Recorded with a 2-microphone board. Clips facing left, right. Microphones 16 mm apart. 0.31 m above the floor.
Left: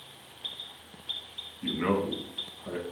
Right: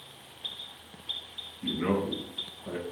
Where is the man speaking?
60° left (ahead or behind), 2.5 m; by 2.8 s 15° left (ahead or behind), 1.9 m.